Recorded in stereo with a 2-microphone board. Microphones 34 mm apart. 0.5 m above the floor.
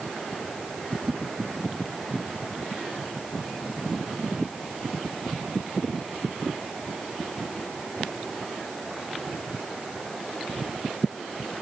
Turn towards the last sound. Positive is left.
No sound to turn to.